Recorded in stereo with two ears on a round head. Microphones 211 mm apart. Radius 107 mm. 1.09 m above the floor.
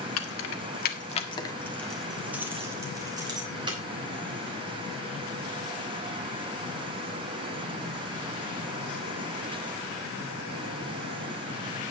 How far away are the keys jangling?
About 1.8 m.